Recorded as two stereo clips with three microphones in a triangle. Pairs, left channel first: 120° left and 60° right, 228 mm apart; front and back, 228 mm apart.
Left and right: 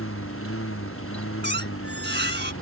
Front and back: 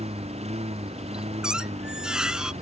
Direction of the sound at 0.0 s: 120° left.